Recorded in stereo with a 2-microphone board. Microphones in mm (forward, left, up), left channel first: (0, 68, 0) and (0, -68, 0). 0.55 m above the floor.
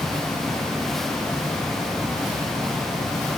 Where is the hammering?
No hammering in this recording.